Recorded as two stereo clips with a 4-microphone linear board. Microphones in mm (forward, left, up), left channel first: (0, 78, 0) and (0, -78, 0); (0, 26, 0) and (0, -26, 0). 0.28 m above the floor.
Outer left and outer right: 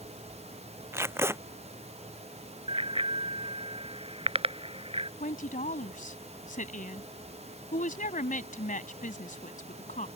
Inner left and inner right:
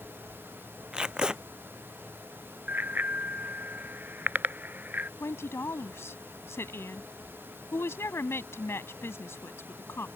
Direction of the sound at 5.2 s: 60° left (ahead or behind).